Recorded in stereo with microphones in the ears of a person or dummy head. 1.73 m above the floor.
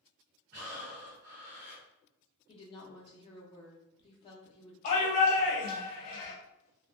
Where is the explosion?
I don't hear an explosion.